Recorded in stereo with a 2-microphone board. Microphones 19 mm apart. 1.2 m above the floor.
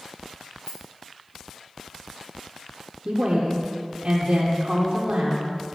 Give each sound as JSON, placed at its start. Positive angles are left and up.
{"t": 0.6, "sound": "a rattle", "side_deg": 40, "distance_m": 2.5}
{"t": 3.0, "sound": "a woman speaking", "side_deg": -55, "distance_m": 0.7}